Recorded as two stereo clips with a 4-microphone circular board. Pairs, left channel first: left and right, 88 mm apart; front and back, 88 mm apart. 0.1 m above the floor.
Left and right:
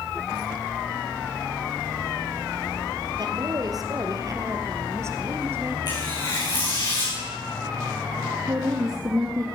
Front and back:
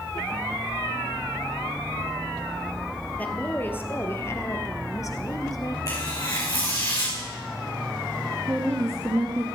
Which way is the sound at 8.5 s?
130° right.